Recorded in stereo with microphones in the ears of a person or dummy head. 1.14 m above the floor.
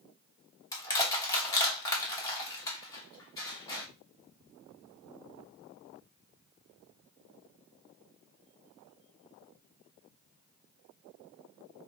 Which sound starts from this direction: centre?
Crushing, at 0.7 s.